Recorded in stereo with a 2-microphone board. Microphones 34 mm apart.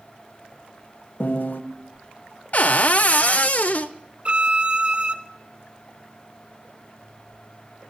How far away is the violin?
About 0.7 m.